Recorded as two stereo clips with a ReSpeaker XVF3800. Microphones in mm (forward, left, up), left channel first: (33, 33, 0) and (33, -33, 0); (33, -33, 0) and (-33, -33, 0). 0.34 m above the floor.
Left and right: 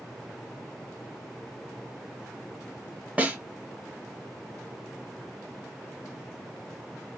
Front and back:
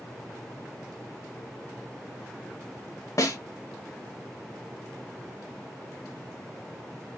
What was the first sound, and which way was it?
A snare drum, 25° right.